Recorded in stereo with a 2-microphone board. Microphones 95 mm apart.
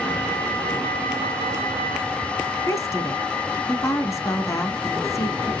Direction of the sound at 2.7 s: 30° left (ahead or behind).